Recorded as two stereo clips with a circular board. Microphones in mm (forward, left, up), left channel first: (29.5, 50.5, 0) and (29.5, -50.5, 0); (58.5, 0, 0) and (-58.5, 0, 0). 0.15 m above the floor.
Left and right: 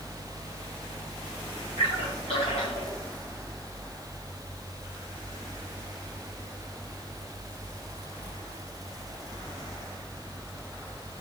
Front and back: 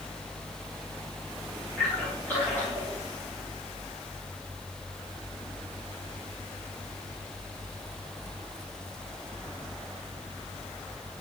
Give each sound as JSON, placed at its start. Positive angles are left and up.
{"t": 1.8, "sound": "a splash", "azimuth_deg": 75, "distance_m": 5.5}